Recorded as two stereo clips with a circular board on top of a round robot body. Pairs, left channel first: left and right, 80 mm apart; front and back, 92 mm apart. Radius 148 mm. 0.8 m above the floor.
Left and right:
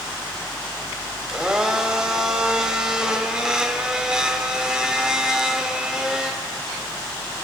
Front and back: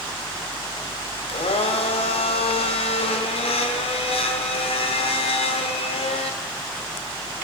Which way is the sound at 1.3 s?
10° right.